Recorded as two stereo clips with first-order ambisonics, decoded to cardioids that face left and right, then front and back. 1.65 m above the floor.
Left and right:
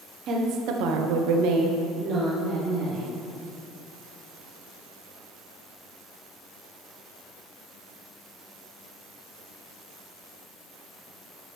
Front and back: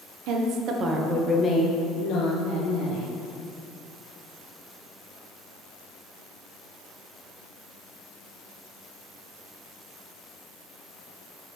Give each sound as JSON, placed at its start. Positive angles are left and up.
{"t": 0.3, "sound": "a woman speaking", "azimuth_deg": -145, "distance_m": 1.0}